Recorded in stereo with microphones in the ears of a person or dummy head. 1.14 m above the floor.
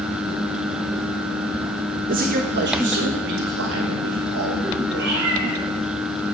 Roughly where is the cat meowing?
Right.